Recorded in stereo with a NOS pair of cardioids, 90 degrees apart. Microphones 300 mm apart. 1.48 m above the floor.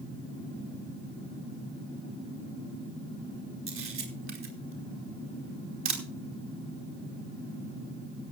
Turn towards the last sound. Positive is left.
turn(degrees=-45)